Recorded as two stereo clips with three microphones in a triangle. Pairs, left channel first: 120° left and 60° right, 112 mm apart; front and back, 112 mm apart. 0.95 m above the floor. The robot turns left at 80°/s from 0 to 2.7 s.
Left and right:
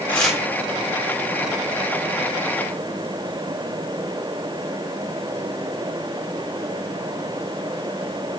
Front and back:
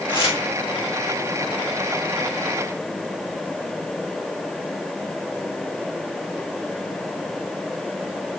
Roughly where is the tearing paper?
Ahead left.